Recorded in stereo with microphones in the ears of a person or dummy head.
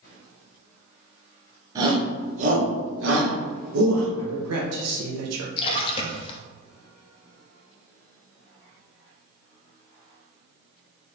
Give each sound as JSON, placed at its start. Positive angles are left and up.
{"t": 1.8, "sound": "a shout", "side_deg": -20, "distance_m": 1.6}
{"t": 4.2, "sound": "a man speaking", "side_deg": -85, "distance_m": 0.7}
{"t": 5.6, "sound": "a splash", "side_deg": 35, "distance_m": 0.7}